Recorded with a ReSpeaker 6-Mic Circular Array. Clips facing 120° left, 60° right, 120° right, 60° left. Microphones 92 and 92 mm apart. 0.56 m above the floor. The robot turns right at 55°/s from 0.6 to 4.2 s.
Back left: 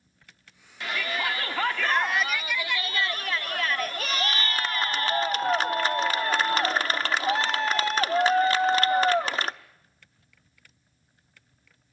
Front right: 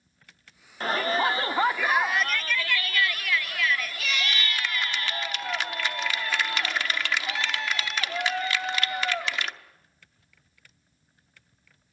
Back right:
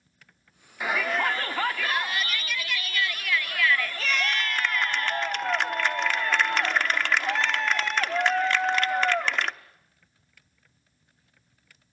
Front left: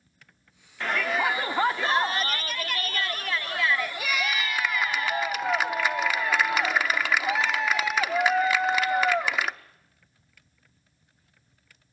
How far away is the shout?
About 0.9 m.